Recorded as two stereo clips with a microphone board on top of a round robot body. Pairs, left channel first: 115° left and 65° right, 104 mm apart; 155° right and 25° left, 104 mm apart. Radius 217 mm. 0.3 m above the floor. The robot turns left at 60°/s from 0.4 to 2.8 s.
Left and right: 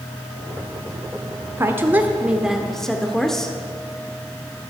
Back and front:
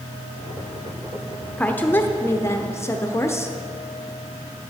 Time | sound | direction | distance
1.6 | a woman speaking | 95° right | 1.1 m